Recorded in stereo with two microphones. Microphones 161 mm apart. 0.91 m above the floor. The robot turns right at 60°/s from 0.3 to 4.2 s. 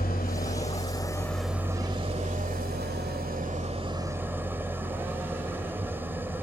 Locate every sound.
0.0 s an engine running: 110° left, 1.7 m; by 6.4 s 15° right, 1.7 m